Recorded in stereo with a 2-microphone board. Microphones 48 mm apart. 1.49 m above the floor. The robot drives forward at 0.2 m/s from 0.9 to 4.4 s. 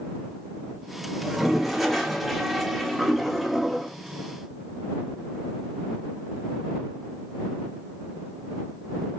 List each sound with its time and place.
1.2 s a toilet flushing: centre (ahead or behind), 0.9 m